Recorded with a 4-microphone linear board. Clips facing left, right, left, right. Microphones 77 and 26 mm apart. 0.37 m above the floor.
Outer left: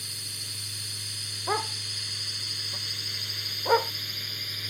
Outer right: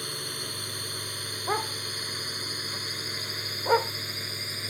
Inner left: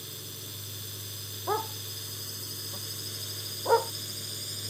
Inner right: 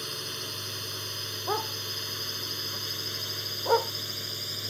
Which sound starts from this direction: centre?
A dog barking, at 1.5 s.